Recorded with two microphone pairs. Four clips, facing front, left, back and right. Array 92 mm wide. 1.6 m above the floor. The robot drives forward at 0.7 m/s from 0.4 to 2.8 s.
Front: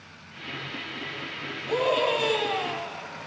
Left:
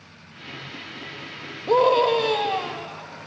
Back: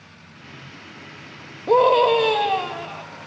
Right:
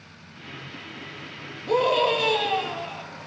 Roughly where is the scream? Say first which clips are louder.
Left 4 dB, back 9 dB; behind left.